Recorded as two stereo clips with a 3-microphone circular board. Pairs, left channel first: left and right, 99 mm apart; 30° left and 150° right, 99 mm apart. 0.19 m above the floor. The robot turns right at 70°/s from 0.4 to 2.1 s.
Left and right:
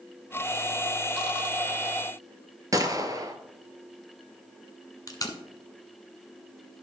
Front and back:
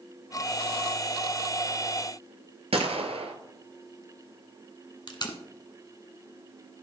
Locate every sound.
2.7 s a gunshot: 145° right, 0.9 m
5.1 s tape being pulled: 50° left, 1.0 m